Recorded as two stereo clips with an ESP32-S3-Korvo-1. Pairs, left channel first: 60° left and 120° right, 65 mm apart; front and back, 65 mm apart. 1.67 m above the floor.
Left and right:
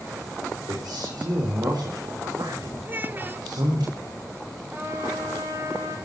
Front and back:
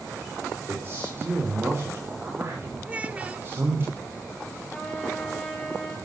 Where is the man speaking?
125° right, 5.5 m.